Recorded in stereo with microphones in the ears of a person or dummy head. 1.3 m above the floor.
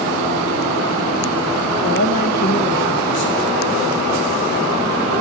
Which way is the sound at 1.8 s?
45° left (ahead or behind).